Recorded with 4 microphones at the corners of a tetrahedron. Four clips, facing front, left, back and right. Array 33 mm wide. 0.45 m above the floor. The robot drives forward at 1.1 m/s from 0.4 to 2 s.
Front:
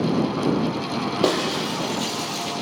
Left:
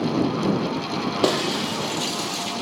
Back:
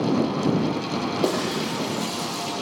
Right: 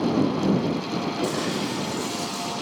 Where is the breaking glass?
60° left, 6 m; by 2.6 s 65° left, 5.5 m.